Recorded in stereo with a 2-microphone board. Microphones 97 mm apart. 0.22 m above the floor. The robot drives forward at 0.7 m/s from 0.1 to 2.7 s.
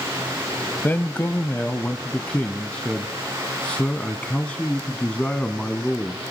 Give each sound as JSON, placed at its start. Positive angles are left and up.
{"t": 0.8, "sound": "a man speaking", "side_deg": 20, "distance_m": 0.9}